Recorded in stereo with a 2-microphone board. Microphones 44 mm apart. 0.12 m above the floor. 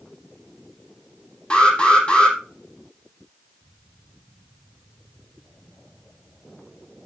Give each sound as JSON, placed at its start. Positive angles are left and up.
{"t": 1.5, "sound": "an alarm", "side_deg": 20, "distance_m": 4.5}